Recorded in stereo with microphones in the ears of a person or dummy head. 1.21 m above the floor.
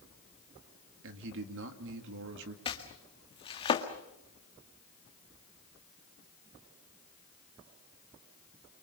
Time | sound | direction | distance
1.0 | a man speaking | 70° right (ahead or behind) | 2.5 m
2.6 | chopping | 25° left (ahead or behind) | 1.8 m